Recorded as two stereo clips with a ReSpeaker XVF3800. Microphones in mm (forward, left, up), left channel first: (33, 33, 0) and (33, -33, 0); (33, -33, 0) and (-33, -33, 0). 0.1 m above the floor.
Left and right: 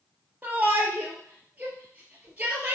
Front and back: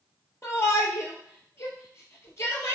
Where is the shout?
30° right, 2.5 m.